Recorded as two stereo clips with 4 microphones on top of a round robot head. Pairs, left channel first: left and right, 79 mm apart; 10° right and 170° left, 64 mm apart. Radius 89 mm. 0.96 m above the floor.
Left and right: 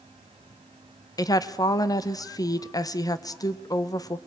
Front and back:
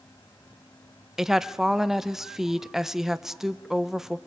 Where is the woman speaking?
85° left, 1.0 m.